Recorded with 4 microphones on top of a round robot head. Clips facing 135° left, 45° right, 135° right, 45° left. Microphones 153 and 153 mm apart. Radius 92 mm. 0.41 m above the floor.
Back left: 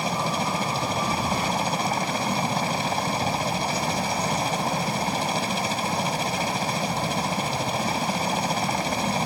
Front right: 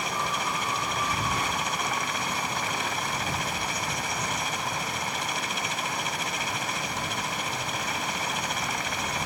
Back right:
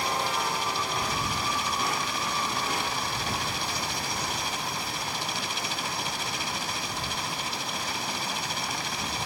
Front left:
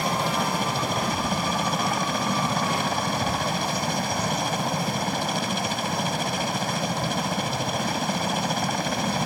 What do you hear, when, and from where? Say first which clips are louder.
0.0 s a helicopter: back left 5 dB, front left 4 dB; 80° left